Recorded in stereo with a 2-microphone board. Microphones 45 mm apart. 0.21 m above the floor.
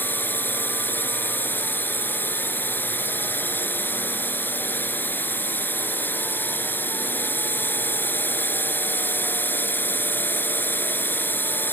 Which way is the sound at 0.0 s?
50° left (ahead or behind).